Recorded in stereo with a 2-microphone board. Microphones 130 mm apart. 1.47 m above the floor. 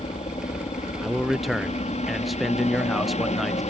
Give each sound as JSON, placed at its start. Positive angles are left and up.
{"t": 0.0, "sound": "a helicopter", "side_deg": 60}
{"t": 1.0, "sound": "a man speaking", "side_deg": 0}